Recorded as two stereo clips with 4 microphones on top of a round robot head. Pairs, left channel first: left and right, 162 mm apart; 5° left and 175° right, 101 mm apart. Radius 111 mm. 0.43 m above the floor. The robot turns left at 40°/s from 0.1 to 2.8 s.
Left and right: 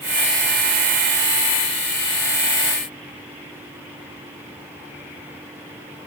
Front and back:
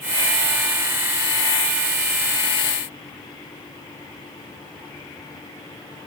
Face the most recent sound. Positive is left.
No sound to turn to.